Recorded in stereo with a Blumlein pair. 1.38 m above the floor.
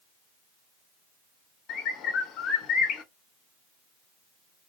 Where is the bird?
30° left, 0.9 m.